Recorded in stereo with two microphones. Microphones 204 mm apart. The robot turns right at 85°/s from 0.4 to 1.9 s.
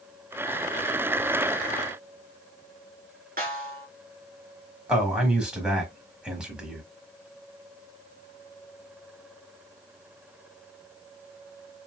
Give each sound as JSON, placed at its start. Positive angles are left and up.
{"t": 3.4, "sound": "a snare drum", "side_deg": -45, "distance_m": 1.3}
{"t": 4.9, "sound": "a man speaking", "side_deg": -5, "distance_m": 1.3}